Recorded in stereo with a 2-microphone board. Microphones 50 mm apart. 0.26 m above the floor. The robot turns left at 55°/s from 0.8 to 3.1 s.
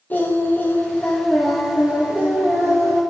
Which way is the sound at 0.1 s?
40° left.